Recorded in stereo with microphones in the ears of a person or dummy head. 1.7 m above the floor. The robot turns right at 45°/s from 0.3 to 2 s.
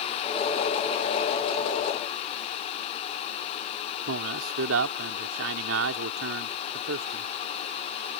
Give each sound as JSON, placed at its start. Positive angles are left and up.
{"t": 4.1, "sound": "a man speaking", "side_deg": -75}